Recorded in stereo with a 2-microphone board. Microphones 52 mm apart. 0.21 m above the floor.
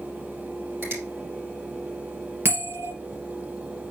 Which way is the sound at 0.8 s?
45° right (ahead or behind).